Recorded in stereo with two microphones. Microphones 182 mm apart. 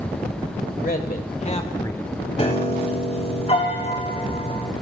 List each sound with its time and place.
0.8 s a man speaking: 55° left (ahead or behind), 1.9 m; by 2.1 s 5° left (ahead or behind), 1.1 m
2.4 s a piano: 35° left (ahead or behind), 1.8 m